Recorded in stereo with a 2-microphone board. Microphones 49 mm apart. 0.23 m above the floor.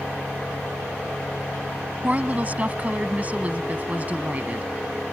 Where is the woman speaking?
30° right (ahead or behind).